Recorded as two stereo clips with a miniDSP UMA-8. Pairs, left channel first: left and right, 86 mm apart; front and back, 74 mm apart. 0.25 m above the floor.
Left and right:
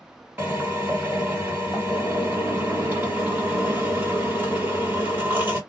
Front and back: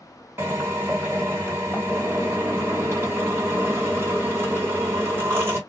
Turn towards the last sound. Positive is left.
turn(degrees=-145)